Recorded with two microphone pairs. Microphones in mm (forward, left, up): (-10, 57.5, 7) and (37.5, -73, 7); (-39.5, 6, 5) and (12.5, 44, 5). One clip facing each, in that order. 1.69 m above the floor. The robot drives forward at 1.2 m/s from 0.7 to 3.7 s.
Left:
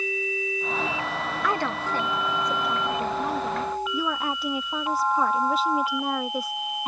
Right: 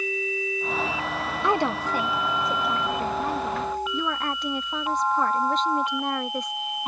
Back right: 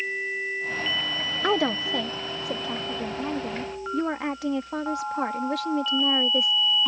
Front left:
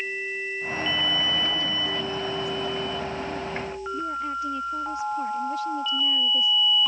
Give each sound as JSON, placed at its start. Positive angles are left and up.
{"t": 1.4, "sound": "a woman speaking", "azimuth_deg": -135}